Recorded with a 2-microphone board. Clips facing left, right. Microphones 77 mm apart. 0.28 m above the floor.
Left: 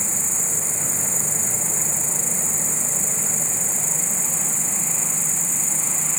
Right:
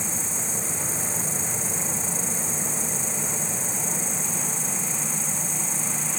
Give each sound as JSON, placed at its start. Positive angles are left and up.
{"t": 0.0, "sound": "an insect", "side_deg": -15}